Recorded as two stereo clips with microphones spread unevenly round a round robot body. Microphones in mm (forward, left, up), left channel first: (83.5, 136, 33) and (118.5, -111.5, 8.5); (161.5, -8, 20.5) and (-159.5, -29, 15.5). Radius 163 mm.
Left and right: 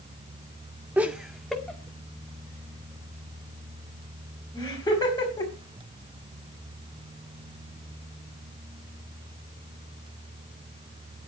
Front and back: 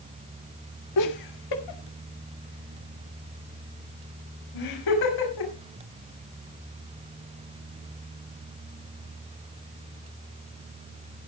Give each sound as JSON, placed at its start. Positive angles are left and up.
{"t": 1.0, "sound": "laughter", "azimuth_deg": 0, "distance_m": 1.5}